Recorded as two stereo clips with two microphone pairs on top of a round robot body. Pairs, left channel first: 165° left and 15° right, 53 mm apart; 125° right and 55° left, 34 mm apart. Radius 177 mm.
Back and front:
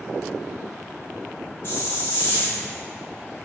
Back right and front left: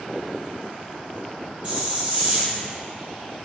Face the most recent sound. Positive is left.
turn(degrees=120)